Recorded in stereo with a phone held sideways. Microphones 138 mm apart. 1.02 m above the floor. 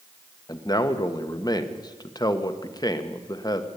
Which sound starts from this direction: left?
A man speaking, at 0.5 s.